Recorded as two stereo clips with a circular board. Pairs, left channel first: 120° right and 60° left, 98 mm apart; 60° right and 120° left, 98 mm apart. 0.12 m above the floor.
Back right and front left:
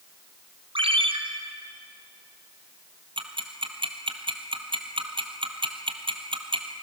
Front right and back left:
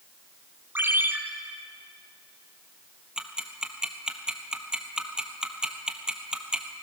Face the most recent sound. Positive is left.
turn(degrees=40)